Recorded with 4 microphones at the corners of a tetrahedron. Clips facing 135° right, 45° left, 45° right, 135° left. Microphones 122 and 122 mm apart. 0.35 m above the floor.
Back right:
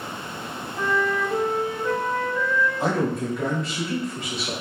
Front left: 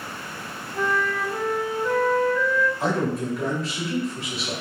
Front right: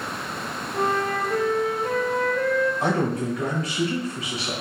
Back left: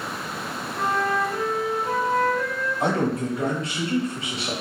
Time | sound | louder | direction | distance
0.7 | a flute | back right 1 dB, even | 65° right | 0.7 m
2.8 | a man speaking | back right 1 dB, even | 130° left | 1.0 m